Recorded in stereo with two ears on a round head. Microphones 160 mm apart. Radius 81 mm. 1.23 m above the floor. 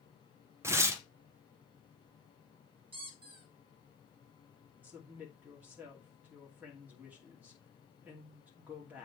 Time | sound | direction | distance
0.6 | tearing paper | 15° right (ahead or behind) | 0.9 m
2.9 | a squeak | 30° right (ahead or behind) | 1.7 m
4.8 | a woman speaking | 10° right (ahead or behind) | 2.5 m